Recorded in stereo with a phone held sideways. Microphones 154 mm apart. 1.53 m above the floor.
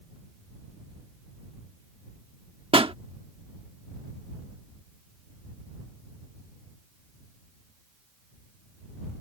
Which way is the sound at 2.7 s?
35° right (ahead or behind).